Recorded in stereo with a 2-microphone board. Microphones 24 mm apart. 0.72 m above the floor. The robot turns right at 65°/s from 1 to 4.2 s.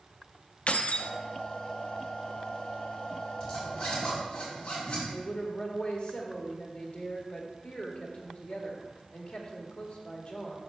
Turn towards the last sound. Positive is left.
turn(degrees=50)  # may be behind; listen again after turning